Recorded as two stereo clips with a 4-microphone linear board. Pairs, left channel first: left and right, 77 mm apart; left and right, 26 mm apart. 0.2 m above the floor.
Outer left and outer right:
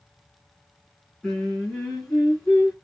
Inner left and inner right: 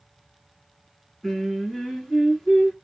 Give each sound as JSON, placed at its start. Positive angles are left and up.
{"t": 1.2, "sound": "singing", "side_deg": 5, "distance_m": 2.5}